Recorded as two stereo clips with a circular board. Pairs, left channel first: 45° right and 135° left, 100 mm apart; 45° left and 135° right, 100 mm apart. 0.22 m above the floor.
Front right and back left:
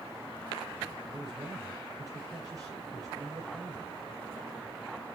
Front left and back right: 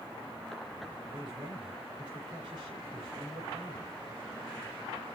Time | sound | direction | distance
1.1 | a man speaking | 170° right | 5.5 m